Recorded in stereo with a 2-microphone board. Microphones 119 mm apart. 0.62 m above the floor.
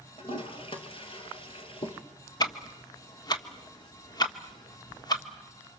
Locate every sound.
0.2 s a toilet flushing: 45° left (ahead or behind), 2.5 m
2.4 s ticking: 35° left (ahead or behind), 1.4 m